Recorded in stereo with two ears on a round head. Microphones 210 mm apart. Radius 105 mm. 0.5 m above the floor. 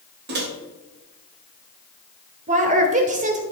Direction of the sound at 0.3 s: 50° right (ahead or behind).